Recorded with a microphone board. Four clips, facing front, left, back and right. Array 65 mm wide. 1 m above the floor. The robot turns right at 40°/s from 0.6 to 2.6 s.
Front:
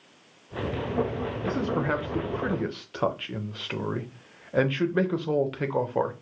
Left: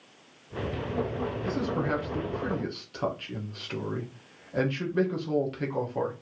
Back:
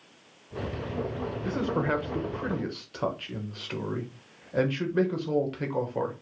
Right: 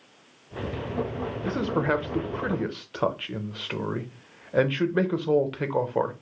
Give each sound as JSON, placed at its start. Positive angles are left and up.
{"t": 1.4, "sound": "a man speaking", "azimuth_deg": -100, "distance_m": 0.9}